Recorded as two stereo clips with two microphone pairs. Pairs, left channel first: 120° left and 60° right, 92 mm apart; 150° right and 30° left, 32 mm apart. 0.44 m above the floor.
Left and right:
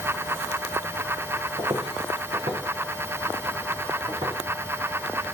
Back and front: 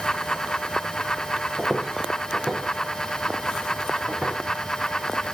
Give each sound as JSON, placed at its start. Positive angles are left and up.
{"t": 1.6, "sound": "footsteps", "azimuth_deg": -50, "distance_m": 1.6}